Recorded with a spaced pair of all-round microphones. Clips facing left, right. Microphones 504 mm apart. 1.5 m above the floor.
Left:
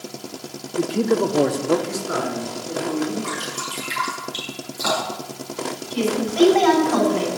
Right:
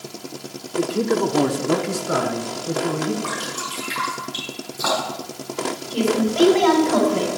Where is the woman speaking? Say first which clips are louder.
Right 2 dB; 50° right (ahead or behind), 5.5 m.